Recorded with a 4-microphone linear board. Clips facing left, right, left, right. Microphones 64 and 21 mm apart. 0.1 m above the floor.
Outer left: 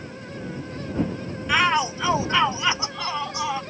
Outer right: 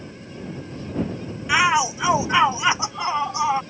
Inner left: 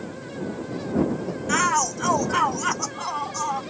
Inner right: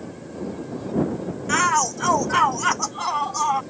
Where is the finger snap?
I don't hear a finger snap.